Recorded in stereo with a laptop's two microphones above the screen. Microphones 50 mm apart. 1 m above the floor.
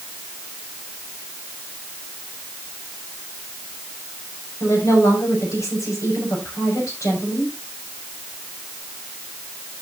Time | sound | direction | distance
4.6 | a woman speaking | 80° left | 6.5 m